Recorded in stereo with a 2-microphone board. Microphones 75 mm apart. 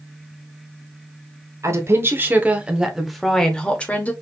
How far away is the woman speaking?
About 1.3 m.